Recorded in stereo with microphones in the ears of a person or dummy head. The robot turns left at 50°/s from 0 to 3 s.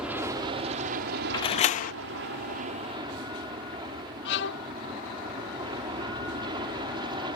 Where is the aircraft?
5° right; by 7.4 s 155° right.